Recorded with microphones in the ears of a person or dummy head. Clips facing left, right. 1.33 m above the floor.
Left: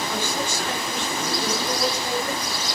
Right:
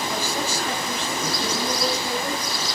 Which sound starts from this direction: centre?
A man speaking, at 0.1 s.